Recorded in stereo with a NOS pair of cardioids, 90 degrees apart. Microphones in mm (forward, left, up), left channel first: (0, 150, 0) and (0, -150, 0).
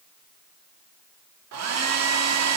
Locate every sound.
1.5 s a hair dryer: 70° right, 2 m